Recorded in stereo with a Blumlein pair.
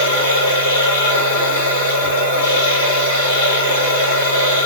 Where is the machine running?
60° left, 2.5 m.